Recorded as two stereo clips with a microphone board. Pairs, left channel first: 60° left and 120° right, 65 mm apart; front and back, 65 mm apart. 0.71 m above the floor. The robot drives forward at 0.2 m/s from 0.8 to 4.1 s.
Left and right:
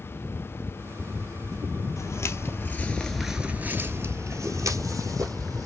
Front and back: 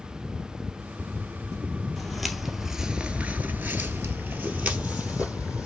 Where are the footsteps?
85° left, 1.2 m; by 5.7 s 110° right, 1.8 m.